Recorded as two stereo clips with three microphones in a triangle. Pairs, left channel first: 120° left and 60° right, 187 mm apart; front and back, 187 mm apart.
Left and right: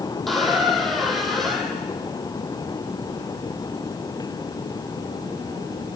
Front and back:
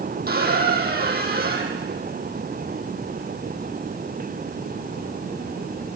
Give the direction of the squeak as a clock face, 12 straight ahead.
5 o'clock.